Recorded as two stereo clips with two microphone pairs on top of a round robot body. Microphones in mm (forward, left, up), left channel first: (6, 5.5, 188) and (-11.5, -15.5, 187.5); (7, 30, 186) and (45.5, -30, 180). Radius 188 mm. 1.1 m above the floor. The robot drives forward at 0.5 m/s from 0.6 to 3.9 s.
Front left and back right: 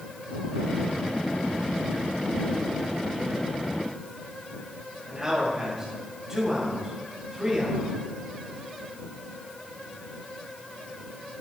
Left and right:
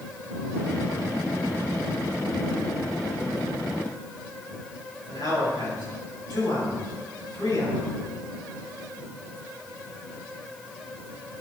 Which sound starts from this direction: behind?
A man speaking, at 5.1 s.